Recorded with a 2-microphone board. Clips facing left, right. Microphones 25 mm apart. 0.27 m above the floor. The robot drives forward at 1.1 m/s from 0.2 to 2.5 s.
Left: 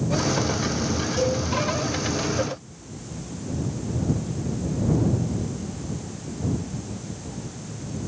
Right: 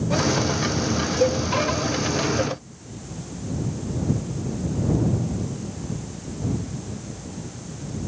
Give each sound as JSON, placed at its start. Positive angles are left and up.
{"t": 1.2, "sound": "a cowbell", "side_deg": 15, "distance_m": 9.0}